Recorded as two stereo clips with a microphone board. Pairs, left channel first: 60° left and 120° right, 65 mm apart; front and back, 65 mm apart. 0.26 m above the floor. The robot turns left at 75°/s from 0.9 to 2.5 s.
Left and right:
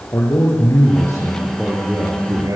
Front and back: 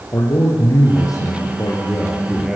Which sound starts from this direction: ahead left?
A man speaking, at 0.1 s.